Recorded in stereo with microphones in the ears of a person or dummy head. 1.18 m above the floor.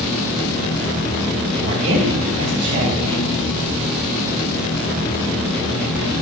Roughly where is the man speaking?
Right.